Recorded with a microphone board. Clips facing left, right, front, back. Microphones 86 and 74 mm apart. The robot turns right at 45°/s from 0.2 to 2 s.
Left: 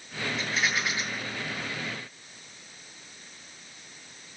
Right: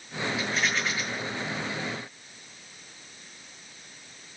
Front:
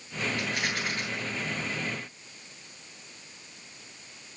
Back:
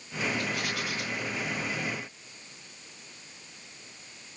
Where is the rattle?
5° right, 10 m; by 1.0 s 25° left, 10 m.